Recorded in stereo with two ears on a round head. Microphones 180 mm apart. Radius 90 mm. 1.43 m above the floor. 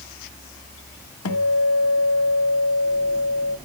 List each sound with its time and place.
1.2 s a guitar: 85° left, 0.9 m